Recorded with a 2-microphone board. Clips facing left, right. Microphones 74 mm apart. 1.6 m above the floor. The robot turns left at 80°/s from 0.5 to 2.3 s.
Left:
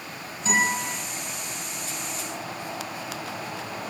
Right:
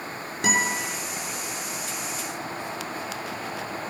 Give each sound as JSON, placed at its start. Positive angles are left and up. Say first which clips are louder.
{"t": 0.4, "sound": "a guitar", "louder": "left 1 dB", "side_deg": -80, "distance_m": 6.5}